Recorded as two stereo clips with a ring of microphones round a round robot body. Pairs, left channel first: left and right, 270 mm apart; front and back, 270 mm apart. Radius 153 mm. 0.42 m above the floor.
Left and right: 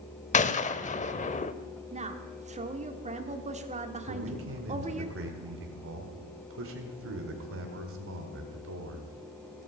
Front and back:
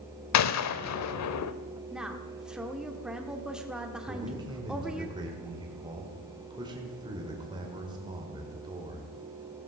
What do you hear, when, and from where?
0.3 s a gunshot: 25° left, 0.7 m
1.9 s a woman speaking: 95° right, 1.1 m
4.1 s a man speaking: 110° right, 1.8 m